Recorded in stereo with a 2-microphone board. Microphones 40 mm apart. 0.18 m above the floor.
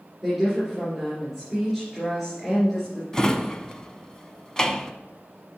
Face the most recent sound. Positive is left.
turn(degrees=20)  # may be behind; listen again after turning